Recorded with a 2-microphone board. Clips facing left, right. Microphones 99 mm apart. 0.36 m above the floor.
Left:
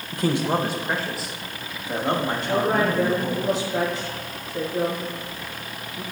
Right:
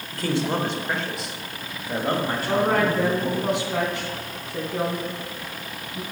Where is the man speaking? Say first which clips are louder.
Left 2 dB; 20° left (ahead or behind), 0.9 m; by 3.5 s 10° right (ahead or behind), 2.5 m.